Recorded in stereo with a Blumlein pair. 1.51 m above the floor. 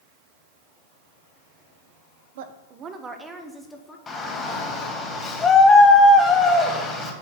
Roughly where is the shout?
Ahead.